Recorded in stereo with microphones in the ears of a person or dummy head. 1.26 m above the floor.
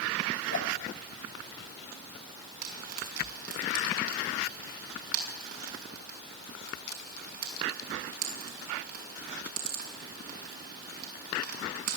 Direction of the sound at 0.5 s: 60° left (ahead or behind).